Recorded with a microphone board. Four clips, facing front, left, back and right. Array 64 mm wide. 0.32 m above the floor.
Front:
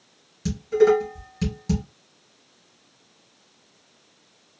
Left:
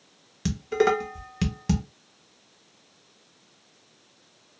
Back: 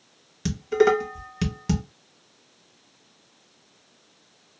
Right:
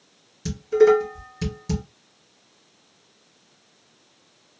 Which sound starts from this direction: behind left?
Dishes clattering, at 0.5 s.